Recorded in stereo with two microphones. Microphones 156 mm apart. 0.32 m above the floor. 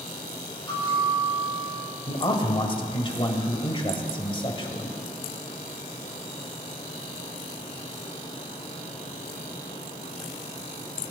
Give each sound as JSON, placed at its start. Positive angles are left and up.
{"t": 0.7, "sound": "a bell", "side_deg": 30, "distance_m": 5.5}
{"t": 2.1, "sound": "a man speaking", "side_deg": 35, "distance_m": 1.4}